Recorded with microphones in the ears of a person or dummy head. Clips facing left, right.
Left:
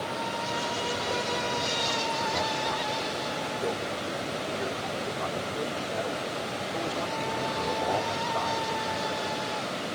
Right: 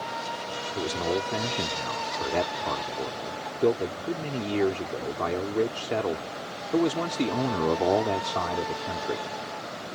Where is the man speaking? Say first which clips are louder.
Right 8 dB; 75° right (ahead or behind).